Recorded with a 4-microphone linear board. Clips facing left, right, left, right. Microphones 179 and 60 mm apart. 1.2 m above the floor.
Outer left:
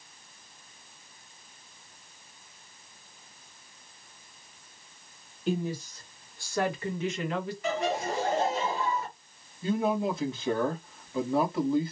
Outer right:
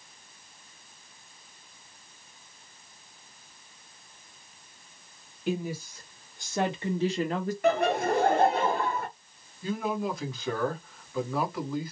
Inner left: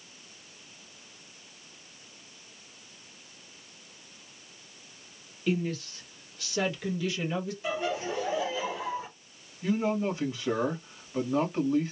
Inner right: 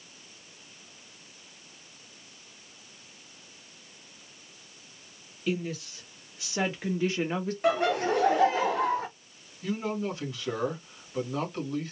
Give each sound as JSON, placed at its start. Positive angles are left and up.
{"t": 5.5, "sound": "a woman speaking", "side_deg": -5, "distance_m": 1.7}
{"t": 7.6, "sound": "laughter", "side_deg": -60, "distance_m": 0.9}
{"t": 9.6, "sound": "a man speaking", "side_deg": 25, "distance_m": 1.8}